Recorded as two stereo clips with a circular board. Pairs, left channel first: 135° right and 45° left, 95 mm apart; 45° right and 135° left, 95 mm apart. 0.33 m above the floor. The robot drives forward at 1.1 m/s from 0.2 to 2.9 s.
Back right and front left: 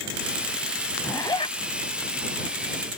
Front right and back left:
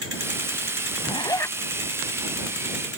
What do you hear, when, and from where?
1.0 s a zipper: 65° right; by 1.6 s 115° right